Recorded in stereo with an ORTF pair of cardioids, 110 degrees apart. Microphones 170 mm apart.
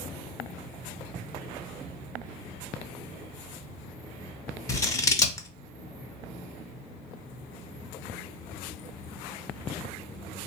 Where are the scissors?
20° left, 0.6 m.